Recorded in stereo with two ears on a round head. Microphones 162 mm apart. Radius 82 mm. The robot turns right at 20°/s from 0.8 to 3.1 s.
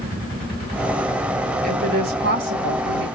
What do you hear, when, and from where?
1.6 s a woman speaking: 45° right (ahead or behind), 1.7 m; by 3.1 s 75° right (ahead or behind), 1.7 m